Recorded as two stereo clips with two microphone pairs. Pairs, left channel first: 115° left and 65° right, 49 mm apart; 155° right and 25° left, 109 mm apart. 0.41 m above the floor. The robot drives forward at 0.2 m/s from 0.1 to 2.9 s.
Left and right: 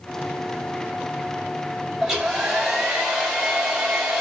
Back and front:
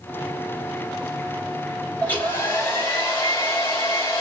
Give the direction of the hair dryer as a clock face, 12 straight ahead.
4 o'clock.